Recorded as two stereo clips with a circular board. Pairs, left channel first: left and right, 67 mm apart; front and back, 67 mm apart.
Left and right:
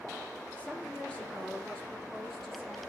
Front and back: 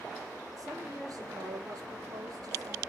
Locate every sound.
0.6 s a woman speaking: 160° left, 5.5 m; by 2.8 s 175° left, 5.5 m